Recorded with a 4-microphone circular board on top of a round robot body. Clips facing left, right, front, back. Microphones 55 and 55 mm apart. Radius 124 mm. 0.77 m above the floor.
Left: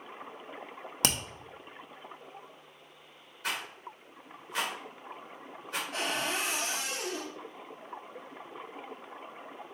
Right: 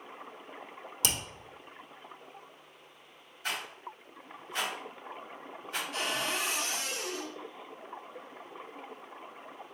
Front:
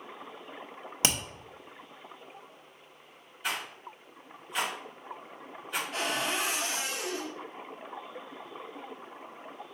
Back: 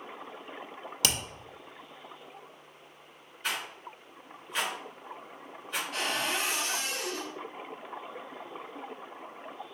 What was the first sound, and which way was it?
Hammering, 60° left.